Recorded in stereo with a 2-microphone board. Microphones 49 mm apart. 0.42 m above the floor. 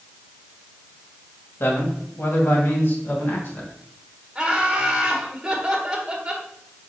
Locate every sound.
1.6 s a man speaking: 60° left (ahead or behind), 2 m; by 3.7 s 40° left (ahead or behind), 2.5 m
4.3 s laughter: 10° right (ahead or behind), 2.5 m